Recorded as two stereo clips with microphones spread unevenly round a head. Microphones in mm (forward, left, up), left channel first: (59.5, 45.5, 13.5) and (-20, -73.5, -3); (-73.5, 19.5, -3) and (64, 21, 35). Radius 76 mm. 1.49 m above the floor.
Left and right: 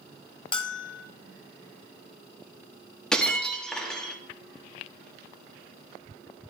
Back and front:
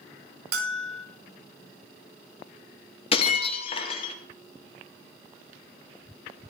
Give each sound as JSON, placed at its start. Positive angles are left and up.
{"t": 0.5, "sound": "a bell", "azimuth_deg": 0, "distance_m": 1.0}
{"t": 3.1, "sound": "breaking glass", "azimuth_deg": 130, "distance_m": 1.0}